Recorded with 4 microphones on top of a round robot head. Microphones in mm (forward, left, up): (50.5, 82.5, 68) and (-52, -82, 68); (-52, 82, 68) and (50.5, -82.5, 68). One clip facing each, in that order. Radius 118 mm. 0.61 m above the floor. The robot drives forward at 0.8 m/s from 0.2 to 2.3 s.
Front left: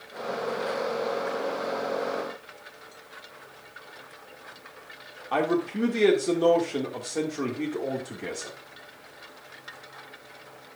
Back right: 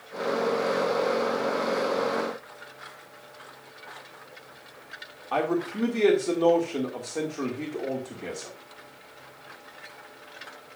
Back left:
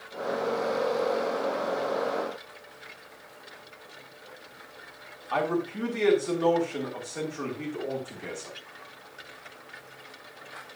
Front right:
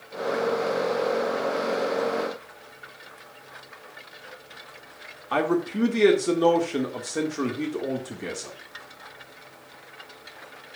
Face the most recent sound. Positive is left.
turn(degrees=-25)